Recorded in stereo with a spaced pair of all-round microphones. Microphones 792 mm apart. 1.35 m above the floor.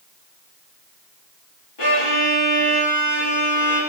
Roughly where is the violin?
Left.